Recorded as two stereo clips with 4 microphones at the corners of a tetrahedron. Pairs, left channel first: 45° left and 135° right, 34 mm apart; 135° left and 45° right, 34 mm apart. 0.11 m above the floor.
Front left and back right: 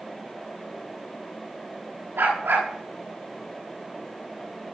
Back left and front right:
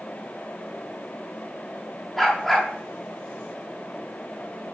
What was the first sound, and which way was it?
A dog barking, 135° right.